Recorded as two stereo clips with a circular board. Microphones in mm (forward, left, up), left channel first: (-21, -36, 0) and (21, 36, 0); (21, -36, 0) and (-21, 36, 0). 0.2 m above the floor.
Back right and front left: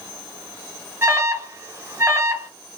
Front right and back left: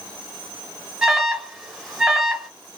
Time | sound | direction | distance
1.0 | an alarm | 45° left | 1.1 m